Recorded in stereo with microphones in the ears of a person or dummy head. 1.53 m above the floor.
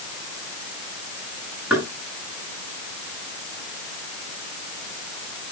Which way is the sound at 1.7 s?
10° right (ahead or behind).